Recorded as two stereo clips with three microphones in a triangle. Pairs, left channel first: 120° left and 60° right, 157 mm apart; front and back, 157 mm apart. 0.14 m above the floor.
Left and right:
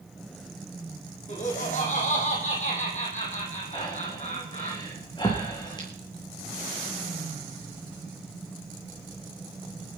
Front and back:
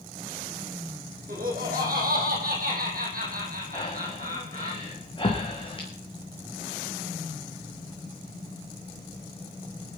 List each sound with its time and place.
1.3 s laughter: 160° left, 4.5 m
3.7 s breathing: 55° left, 3.5 m